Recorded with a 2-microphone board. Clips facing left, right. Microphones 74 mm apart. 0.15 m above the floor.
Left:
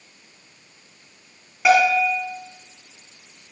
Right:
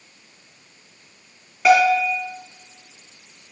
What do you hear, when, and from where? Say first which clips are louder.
1.6 s a bell: right 1 dB; 10° left (ahead or behind), 2.5 m